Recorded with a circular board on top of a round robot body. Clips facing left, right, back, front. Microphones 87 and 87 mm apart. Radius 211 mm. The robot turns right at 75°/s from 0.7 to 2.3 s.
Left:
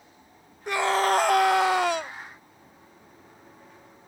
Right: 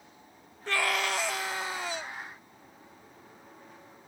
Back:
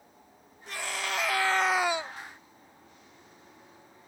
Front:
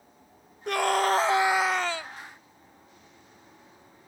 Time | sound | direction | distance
0.7 | a scream | 15° left | ?